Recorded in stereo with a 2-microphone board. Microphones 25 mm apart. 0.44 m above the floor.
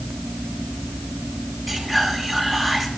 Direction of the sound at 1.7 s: 5° left (ahead or behind).